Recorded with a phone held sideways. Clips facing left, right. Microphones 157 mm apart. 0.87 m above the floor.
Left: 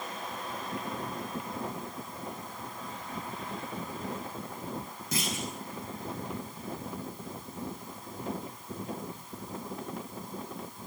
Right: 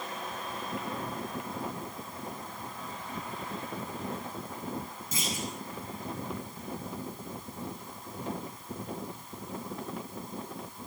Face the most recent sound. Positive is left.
turn(degrees=80)